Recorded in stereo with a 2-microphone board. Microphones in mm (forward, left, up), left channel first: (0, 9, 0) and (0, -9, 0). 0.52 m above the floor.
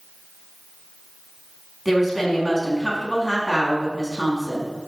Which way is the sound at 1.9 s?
15° right (ahead or behind).